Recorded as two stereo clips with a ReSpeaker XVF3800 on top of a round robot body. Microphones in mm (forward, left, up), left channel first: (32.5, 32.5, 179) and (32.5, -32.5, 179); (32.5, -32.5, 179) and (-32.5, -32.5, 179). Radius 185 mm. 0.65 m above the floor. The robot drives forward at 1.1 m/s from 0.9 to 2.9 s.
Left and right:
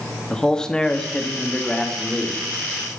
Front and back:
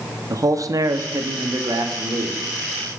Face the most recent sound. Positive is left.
turn(degrees=175)